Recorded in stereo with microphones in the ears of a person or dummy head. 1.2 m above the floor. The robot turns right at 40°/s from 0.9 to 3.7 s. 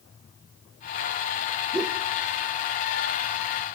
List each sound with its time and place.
1.7 s a whoosh: 5° right (ahead or behind), 0.8 m; by 2.0 s 5° left (ahead or behind), 0.8 m